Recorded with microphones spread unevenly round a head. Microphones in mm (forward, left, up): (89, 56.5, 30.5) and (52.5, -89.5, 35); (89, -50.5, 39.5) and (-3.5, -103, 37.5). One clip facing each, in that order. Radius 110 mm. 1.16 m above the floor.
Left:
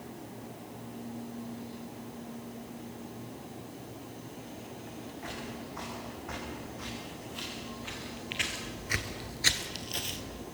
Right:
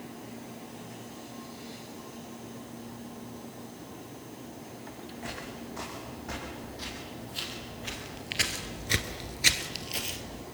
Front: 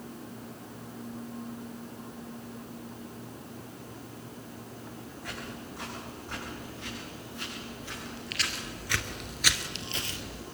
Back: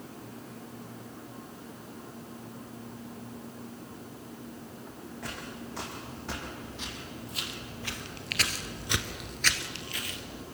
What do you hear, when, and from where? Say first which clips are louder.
5.2 s footsteps: right 2 dB, back 1 dB; 175° right, 5.5 m; by 10.4 s 15° right, 2.5 m